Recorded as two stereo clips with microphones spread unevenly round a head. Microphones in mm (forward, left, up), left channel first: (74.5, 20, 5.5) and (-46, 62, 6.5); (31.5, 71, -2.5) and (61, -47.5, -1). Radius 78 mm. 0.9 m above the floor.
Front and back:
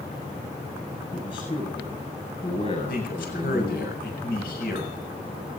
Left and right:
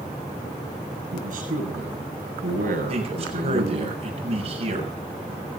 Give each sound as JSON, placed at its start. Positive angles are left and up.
{"t": 1.1, "sound": "a man speaking", "azimuth_deg": -75, "distance_m": 8.0}
{"t": 2.9, "sound": "a man speaking", "azimuth_deg": -40, "distance_m": 6.5}